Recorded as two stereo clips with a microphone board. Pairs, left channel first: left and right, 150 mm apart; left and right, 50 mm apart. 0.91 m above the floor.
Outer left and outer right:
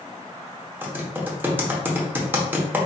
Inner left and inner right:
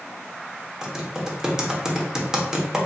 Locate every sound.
0.8 s typing on a keyboard: 15° right (ahead or behind), 0.8 m